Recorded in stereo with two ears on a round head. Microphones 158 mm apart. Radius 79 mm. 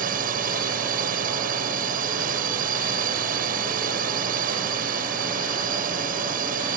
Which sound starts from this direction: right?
A drone, at 0.0 s.